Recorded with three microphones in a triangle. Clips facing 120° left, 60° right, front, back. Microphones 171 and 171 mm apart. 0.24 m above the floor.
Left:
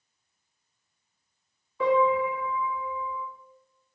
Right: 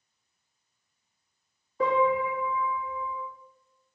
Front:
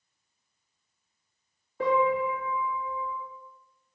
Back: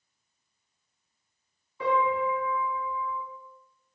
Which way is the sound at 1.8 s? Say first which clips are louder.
Left 2 dB, front 2 dB; 20° right.